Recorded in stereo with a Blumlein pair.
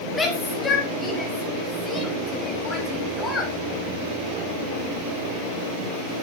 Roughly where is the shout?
Ahead.